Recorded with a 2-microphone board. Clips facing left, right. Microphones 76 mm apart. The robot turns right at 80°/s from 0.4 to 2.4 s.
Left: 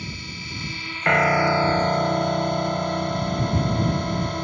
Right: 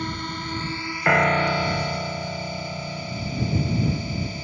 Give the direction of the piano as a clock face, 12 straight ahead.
12 o'clock.